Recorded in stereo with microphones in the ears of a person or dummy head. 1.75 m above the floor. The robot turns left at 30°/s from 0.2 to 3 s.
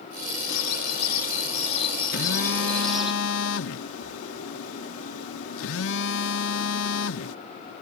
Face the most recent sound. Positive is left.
turn(degrees=75)  # may be behind; listen again after turning